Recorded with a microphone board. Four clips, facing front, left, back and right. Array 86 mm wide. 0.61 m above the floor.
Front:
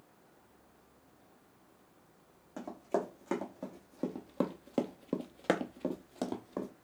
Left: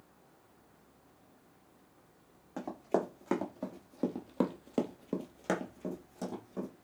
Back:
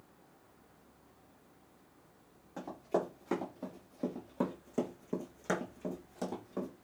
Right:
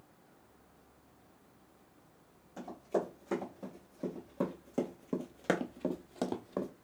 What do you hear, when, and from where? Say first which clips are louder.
2.6 s running footsteps: left 2 dB, even; 75° left, 1.8 m; by 6.7 s 70° right, 1.0 m